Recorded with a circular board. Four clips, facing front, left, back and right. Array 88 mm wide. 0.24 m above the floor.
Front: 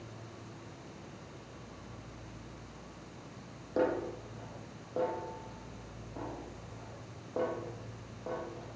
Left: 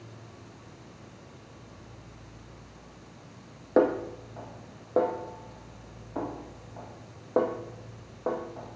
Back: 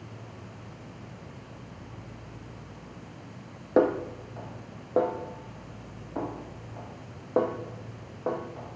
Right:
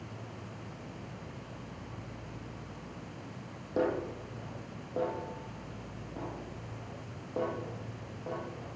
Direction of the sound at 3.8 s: 135° left.